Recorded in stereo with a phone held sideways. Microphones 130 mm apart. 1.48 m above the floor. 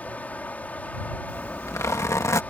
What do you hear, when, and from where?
0.0 s running water: 10° left (ahead or behind)
1.3 s a zipper: 25° left (ahead or behind)